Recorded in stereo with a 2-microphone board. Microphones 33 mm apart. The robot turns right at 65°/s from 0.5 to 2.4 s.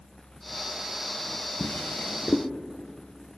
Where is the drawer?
65° left (ahead or behind), 0.8 m; by 2.5 s 35° left (ahead or behind), 0.8 m.